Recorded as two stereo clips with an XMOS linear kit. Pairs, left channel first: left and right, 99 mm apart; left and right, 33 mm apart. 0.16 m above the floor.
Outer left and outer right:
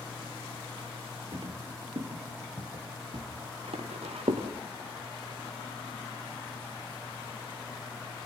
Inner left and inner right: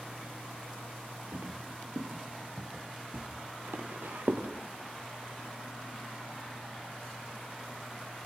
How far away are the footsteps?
About 3.5 m.